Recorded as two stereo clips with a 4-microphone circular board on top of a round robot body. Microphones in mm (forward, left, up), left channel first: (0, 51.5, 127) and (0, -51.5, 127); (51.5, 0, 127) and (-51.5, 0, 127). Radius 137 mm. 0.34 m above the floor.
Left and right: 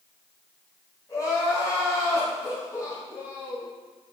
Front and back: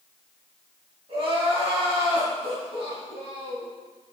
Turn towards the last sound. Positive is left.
turn(degrees=150)